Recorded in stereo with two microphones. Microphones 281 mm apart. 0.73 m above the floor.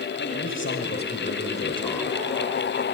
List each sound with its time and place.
0.2 s a man speaking: 50° left (ahead or behind), 4.5 m; by 2.2 s 5° left (ahead or behind), 3 m